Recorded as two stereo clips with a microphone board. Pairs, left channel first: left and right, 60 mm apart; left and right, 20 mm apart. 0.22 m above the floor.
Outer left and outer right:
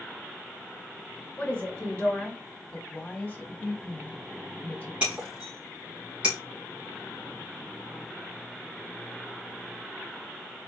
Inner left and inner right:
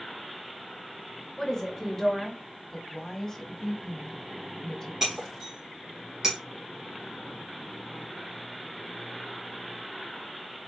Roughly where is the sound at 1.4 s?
Left.